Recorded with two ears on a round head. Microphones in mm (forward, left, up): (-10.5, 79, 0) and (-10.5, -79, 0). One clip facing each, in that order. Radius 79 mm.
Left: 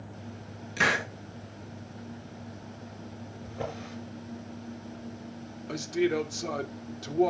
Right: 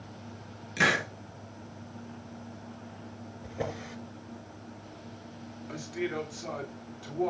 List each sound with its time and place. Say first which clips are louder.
0.8 s a hiss: right 1 dB; 5° right (ahead or behind), 3.5 m
3.4 s a drawer: right 1 dB; 15° right (ahead or behind), 5.5 m
5.7 s a man speaking: left 7 dB; 50° left (ahead or behind), 3 m